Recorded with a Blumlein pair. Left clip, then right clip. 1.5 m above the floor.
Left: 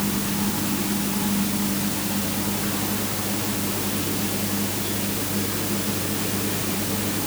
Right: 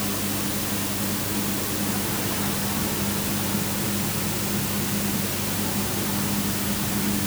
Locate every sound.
Only background noise.